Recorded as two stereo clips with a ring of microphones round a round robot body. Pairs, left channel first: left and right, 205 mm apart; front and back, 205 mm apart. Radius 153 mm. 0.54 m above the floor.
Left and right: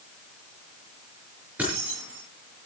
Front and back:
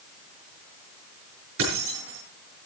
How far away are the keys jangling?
About 6.5 m.